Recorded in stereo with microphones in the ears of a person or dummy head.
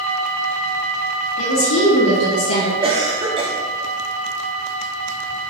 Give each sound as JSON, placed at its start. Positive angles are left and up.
{"t": 1.4, "sound": "a woman speaking", "side_deg": 80, "distance_m": 1.2}
{"t": 2.8, "sound": "a cough", "side_deg": -25, "distance_m": 0.7}